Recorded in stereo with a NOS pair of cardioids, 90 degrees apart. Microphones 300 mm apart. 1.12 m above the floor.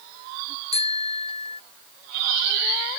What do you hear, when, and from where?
0.7 s a bicycle bell: 20° left